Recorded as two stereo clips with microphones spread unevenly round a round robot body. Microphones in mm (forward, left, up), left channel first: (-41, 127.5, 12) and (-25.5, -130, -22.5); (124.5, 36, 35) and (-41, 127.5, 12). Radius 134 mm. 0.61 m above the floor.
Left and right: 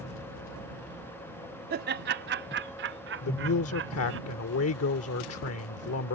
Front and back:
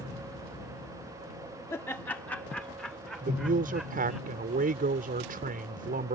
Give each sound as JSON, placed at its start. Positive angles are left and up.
{"t": 1.7, "sound": "laughter", "azimuth_deg": -110}
{"t": 3.2, "sound": "a man speaking", "azimuth_deg": 125}